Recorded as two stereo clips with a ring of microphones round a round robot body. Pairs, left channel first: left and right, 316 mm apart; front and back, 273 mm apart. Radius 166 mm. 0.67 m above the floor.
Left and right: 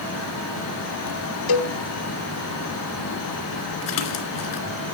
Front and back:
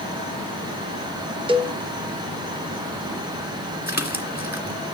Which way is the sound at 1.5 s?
105° left.